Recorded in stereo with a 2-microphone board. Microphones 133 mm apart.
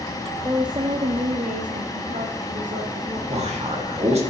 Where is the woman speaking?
25° right (ahead or behind), 0.8 m; by 3.2 s 60° right (ahead or behind), 1.4 m.